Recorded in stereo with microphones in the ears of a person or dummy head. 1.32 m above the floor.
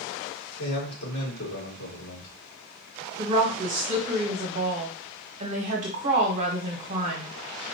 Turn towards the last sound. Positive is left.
turn(degrees=-40)  # may be behind; listen again after turning